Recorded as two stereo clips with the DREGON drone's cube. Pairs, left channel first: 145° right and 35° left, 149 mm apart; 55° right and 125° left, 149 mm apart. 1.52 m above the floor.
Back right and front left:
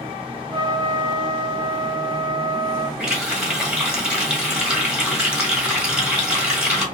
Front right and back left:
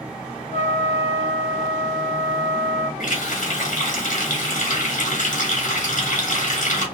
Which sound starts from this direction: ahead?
A trumpet, at 0.5 s.